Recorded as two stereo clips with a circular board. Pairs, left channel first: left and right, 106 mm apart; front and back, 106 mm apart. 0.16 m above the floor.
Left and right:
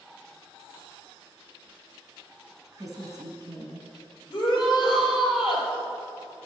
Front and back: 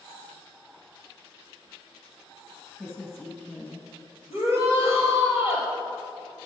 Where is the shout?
125° left, 3.5 m.